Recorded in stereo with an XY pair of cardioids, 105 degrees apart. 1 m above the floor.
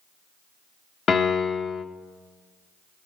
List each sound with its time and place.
1.1 s a piano: 50° left, 0.9 m